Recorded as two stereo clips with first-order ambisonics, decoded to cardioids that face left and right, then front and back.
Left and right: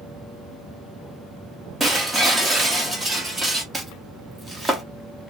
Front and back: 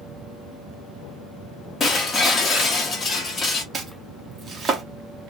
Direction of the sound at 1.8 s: 35° right.